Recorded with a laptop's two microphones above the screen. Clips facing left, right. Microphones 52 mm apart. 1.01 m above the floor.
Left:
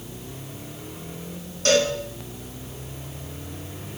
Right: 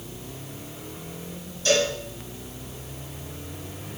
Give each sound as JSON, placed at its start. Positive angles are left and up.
{"t": 1.6, "sound": "a cowbell", "side_deg": 60, "distance_m": 1.7}